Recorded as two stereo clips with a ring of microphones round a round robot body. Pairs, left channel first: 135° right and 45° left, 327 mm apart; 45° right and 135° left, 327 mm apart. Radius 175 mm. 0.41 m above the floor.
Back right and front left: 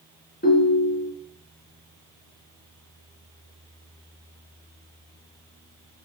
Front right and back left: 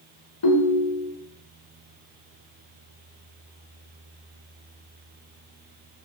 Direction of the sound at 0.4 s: 70° right.